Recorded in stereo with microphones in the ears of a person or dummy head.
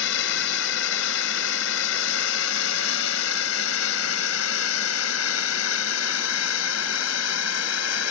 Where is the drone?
70° left (ahead or behind); by 8.1 s 80° left.